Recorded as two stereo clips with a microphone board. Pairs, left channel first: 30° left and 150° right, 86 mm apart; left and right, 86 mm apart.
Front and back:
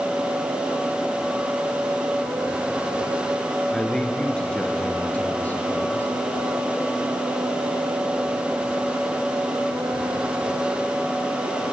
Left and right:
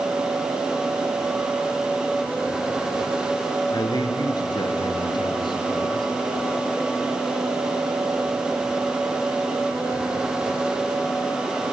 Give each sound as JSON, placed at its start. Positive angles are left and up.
{"t": 3.7, "sound": "a man speaking", "azimuth_deg": 110, "distance_m": 2.5}